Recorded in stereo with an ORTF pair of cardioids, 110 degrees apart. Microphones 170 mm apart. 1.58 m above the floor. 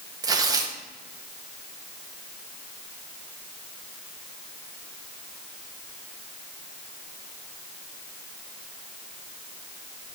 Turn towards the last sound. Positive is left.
turn(degrees=-20)